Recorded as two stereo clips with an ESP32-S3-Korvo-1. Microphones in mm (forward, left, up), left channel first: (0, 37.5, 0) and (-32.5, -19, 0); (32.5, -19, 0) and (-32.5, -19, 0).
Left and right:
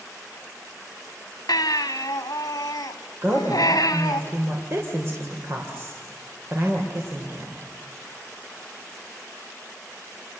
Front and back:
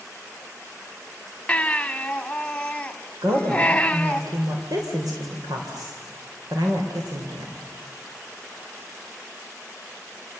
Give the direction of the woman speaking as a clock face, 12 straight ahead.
6 o'clock.